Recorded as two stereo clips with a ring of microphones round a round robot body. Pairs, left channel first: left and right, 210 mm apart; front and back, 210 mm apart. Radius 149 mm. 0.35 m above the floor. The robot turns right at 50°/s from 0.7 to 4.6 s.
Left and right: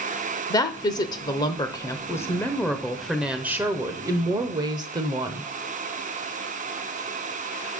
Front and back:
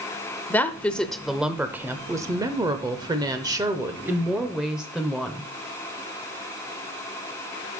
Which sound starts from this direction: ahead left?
A woman speaking, at 0.5 s.